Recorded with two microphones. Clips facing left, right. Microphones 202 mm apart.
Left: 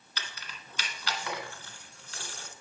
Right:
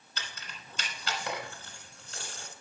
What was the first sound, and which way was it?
Keys jangling, 25° right (ahead or behind).